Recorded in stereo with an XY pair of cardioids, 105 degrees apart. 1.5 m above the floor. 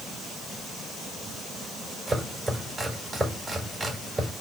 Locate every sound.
2.1 s chopping: 20° right, 4.5 m